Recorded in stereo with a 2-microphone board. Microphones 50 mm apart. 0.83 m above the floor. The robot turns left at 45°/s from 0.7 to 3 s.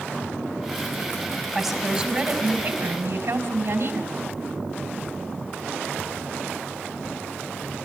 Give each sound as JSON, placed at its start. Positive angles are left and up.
{"t": 1.6, "sound": "a woman speaking", "azimuth_deg": -5, "distance_m": 4.0}